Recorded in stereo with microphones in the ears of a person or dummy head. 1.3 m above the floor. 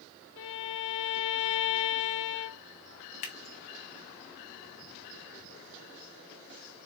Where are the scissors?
30° left (ahead or behind), 0.6 m.